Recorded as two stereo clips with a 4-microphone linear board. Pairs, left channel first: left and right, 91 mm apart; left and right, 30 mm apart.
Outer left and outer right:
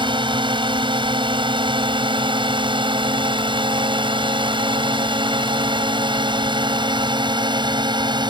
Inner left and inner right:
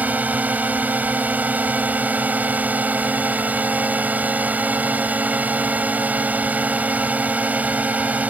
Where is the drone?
60° right (ahead or behind); by 8.3 s 55° right (ahead or behind).